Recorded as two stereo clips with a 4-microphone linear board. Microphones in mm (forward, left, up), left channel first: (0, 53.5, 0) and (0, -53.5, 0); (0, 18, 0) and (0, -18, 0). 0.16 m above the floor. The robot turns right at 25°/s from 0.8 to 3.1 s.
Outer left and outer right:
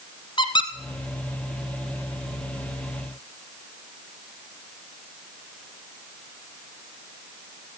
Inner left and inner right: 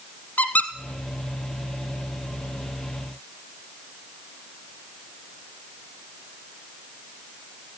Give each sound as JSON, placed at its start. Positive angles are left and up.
{"t": 0.4, "sound": "a squeak", "side_deg": 50, "distance_m": 1.0}